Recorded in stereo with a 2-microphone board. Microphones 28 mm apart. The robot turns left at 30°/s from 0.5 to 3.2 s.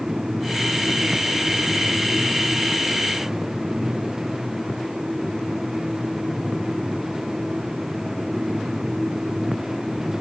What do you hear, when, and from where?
Only background noise.